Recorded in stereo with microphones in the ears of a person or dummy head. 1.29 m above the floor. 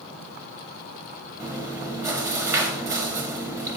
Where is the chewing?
15° right (ahead or behind), 0.7 m.